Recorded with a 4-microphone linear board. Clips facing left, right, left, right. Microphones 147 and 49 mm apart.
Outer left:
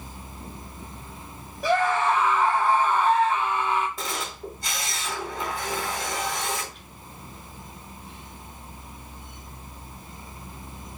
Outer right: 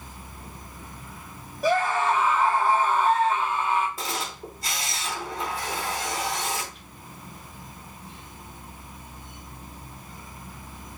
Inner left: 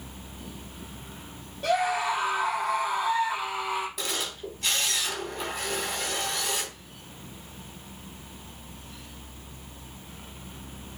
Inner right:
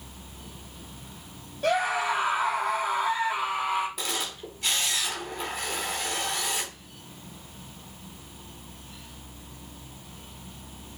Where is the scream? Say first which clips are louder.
Outer left 1 dB, even; centre (ahead or behind), 2 m.